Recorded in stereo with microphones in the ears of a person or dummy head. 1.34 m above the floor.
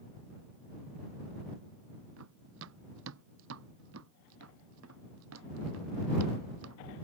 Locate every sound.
2.2 s running footsteps: 80° right; by 6.8 s 85° right